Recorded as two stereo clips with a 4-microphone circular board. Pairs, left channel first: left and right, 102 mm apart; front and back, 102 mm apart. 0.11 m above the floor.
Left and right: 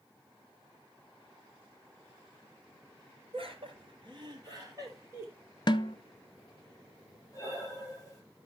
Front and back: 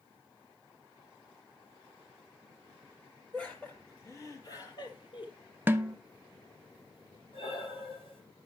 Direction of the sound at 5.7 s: 115° left.